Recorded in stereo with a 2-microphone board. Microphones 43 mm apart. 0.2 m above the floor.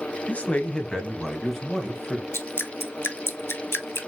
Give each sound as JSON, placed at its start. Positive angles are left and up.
{"t": 0.3, "sound": "a man speaking", "side_deg": 35, "distance_m": 1.1}
{"t": 2.3, "sound": "dripping", "side_deg": 65, "distance_m": 0.7}